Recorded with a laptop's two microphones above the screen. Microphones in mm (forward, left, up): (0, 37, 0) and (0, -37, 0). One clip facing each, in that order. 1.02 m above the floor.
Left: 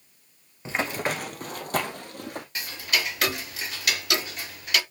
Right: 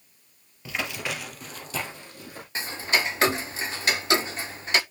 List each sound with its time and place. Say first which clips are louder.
0.7 s running footsteps: left 4 dB; 30° left (ahead or behind), 1.2 m; by 2.5 s 55° left (ahead or behind), 2.5 m
2.5 s ticking: right 4 dB; 30° right (ahead or behind), 0.7 m